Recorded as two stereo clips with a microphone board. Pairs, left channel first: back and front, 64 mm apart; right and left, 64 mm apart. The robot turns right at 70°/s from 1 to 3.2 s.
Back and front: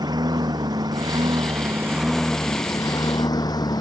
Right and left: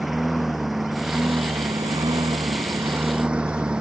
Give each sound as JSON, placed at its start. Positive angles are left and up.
{"t": 0.0, "sound": "a lawn mower", "azimuth_deg": 5}